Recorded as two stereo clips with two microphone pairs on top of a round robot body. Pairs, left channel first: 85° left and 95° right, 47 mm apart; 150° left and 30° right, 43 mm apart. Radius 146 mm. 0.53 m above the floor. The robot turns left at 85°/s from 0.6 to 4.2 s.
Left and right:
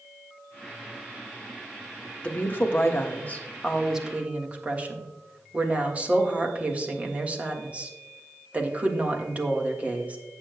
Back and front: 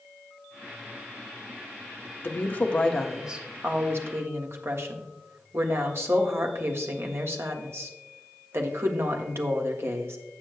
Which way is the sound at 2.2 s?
135° left.